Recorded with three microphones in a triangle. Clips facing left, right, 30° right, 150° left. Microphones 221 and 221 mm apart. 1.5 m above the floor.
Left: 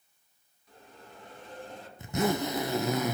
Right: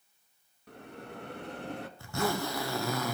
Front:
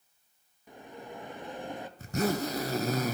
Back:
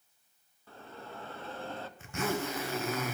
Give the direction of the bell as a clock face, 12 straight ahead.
4 o'clock.